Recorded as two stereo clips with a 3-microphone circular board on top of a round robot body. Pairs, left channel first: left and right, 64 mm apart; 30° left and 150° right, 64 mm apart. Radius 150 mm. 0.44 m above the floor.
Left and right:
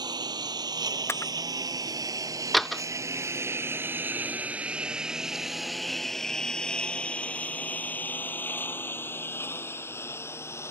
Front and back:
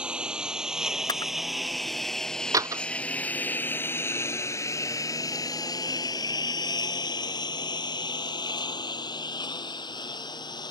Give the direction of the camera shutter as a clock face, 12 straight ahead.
11 o'clock.